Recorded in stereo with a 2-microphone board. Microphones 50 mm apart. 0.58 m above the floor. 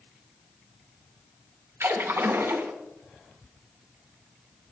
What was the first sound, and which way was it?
A splash, 60° right (ahead or behind).